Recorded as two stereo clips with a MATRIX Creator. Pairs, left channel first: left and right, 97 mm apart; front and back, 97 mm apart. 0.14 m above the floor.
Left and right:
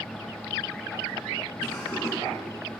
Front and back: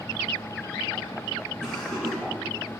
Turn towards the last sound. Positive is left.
turn(degrees=85)